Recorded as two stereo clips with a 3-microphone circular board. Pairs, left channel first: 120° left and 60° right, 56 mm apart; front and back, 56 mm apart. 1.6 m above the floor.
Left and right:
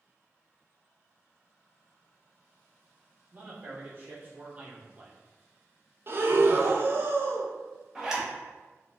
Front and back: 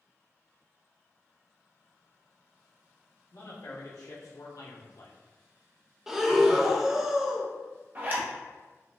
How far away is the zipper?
About 1.0 m.